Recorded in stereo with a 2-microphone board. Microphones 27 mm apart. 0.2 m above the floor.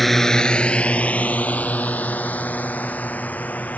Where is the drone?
Centre (ahead or behind); by 3.8 s 85° left.